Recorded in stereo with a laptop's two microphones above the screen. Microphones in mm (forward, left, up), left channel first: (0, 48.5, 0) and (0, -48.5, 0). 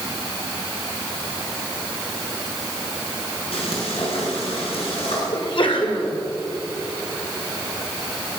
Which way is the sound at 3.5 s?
85° left.